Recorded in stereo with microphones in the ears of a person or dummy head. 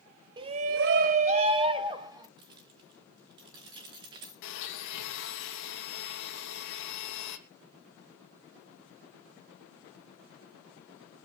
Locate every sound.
0.4 s a shout: 25° right (ahead or behind), 1.0 m
2.4 s keys jangling: 20° right (ahead or behind), 1.0 m
4.4 s a blender: 65° left (ahead or behind), 3 m